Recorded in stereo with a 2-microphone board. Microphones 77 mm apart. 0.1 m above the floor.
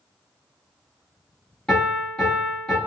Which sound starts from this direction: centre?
A piano, at 1.7 s.